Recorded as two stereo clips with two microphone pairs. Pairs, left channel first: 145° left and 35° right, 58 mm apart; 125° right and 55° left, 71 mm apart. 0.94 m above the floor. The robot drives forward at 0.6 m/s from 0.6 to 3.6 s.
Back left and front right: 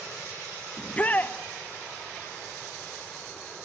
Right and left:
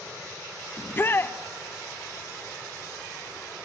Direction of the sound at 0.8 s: 155° right.